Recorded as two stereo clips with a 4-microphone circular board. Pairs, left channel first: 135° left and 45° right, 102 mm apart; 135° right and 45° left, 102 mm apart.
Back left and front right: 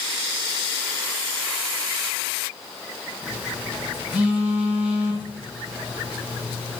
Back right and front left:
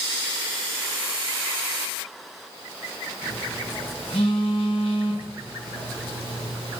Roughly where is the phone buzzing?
Behind right.